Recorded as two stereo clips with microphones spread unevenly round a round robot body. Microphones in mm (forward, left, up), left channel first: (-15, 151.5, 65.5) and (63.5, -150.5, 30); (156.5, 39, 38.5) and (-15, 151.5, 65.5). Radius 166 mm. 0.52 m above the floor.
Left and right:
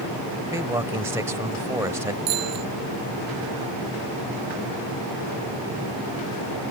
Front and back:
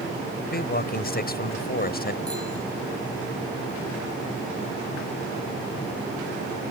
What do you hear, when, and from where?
0.5 s a man speaking: 5° left
2.3 s a bicycle bell: 120° right